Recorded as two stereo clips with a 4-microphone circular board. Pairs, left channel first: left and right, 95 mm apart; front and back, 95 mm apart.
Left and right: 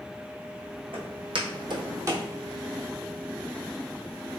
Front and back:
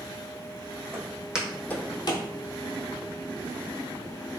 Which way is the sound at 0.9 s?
115° right.